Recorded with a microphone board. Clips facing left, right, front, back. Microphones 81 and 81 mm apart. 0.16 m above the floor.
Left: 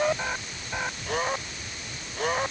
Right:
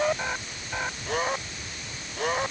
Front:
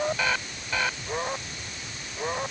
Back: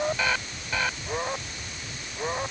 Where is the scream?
No scream in this recording.